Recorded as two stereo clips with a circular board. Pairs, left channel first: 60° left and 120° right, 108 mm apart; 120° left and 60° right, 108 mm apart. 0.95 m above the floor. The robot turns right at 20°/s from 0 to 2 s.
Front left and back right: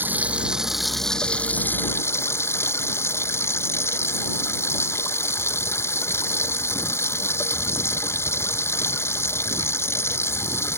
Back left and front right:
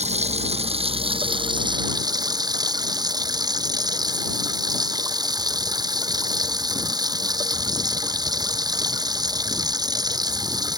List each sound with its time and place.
0.0 s running water: 45° right; by 10.8 s 5° right